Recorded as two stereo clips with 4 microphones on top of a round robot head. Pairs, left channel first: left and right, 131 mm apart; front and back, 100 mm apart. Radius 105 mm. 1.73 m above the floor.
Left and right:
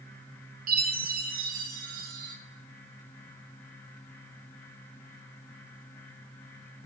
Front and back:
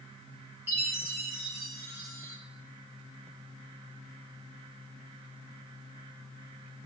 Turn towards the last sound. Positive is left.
turn(degrees=-100)